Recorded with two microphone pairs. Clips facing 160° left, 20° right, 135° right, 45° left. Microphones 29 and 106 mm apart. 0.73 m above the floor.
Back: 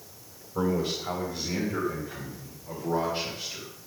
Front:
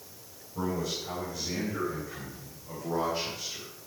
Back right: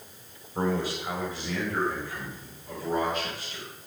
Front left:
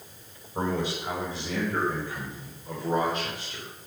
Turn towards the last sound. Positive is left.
turn(degrees=75)